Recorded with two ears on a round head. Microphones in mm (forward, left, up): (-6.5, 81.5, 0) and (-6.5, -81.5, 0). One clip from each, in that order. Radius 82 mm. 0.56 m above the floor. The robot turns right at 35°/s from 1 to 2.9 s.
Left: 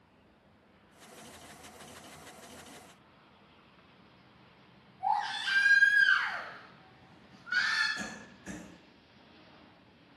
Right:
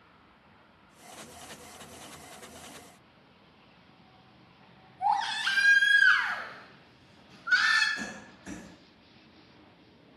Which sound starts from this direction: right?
A baby crying, at 5.0 s.